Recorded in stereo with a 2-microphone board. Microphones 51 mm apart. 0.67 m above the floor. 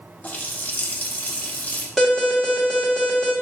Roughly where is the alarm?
Centre.